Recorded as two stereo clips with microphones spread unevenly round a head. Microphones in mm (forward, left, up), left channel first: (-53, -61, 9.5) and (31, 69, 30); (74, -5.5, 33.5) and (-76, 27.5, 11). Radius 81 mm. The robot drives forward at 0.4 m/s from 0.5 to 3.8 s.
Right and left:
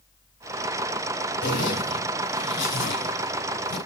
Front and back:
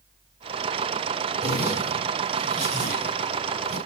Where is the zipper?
135° right, 5 m; by 3.8 s 145° right, 5.5 m.